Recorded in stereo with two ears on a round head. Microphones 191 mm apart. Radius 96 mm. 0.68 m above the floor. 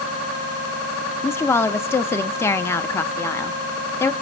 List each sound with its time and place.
1.2 s a woman speaking: 10° left (ahead or behind), 0.6 m